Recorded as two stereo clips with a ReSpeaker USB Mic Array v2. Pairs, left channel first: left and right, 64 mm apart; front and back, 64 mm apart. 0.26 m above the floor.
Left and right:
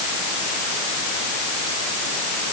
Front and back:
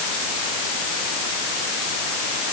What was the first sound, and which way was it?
Only background noise.